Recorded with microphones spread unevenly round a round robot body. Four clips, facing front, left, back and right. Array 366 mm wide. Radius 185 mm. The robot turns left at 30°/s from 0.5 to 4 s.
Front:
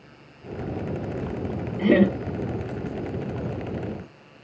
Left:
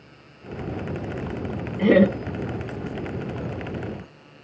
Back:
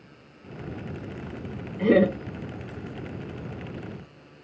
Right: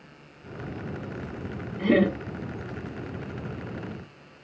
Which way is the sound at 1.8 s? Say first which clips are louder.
Left 5 dB, front 1 dB; 60° left.